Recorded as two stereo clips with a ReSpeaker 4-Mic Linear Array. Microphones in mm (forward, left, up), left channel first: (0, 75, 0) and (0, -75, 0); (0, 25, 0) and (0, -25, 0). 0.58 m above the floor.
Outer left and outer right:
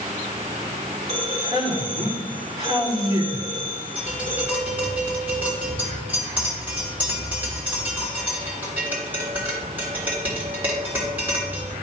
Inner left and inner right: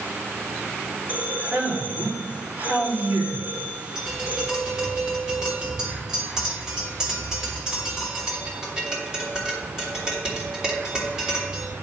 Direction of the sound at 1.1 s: 40° right (ahead or behind).